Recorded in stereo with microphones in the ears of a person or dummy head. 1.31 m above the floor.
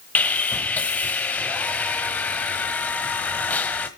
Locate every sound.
0.1 s sawing: 10° left (ahead or behind), 1.2 m